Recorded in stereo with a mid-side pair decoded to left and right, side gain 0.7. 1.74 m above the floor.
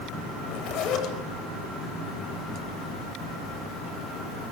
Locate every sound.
0.4 s a zipper: 50° left, 9 m